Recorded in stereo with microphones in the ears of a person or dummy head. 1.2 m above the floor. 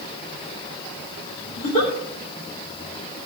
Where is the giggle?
40° left (ahead or behind), 3 m.